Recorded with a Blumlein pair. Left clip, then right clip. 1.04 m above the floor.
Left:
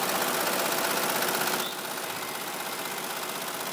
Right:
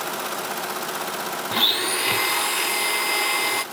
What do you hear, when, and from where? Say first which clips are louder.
1.5 s a blender: right 11 dB; 40° right, 0.5 m